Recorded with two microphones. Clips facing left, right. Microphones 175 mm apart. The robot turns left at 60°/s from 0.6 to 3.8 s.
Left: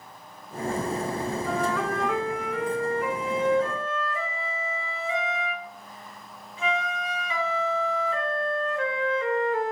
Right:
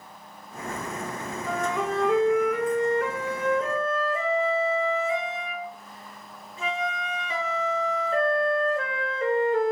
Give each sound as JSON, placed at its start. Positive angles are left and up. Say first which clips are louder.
{"t": 1.5, "sound": "a flute", "louder": "right 2 dB", "azimuth_deg": 0, "distance_m": 0.7}